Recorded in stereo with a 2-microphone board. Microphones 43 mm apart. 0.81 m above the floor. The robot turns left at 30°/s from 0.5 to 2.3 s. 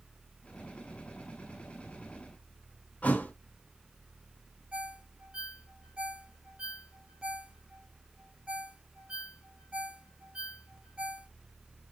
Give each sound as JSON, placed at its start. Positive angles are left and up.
{"t": 3.0, "sound": "a thud", "side_deg": 40, "distance_m": 0.6}
{"t": 4.7, "sound": "a ringtone", "side_deg": -30, "distance_m": 1.6}